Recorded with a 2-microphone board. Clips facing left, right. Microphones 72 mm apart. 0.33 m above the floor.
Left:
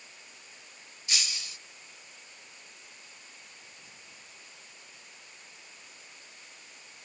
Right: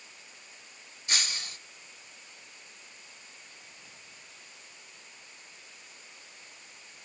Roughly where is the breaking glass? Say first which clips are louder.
Right 3 dB; right.